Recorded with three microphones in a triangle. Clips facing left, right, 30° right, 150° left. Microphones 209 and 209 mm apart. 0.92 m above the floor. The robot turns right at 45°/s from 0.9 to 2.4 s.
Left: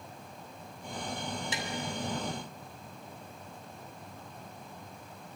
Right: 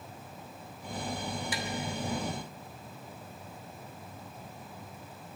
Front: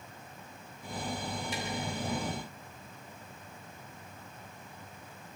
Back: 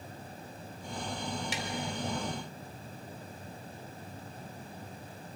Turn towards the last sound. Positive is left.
turn(degrees=-165)